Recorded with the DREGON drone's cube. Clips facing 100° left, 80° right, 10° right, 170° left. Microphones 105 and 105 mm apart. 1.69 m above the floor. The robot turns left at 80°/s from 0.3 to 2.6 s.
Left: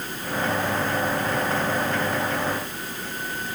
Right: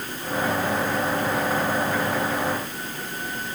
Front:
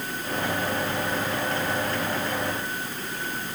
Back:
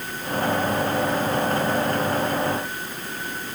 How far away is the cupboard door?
I don't hear a cupboard door.